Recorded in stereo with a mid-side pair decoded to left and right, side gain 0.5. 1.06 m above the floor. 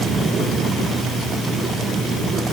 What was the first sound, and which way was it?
Only background noise.